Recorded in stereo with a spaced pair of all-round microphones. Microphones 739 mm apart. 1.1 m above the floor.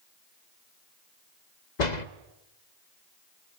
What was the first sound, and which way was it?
A door slam, 65° left (ahead or behind).